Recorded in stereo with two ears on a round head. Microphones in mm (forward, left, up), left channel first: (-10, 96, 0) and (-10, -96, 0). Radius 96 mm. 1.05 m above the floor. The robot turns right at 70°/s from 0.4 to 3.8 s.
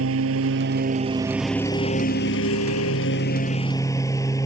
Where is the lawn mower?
75° right; by 4.5 s 165° left.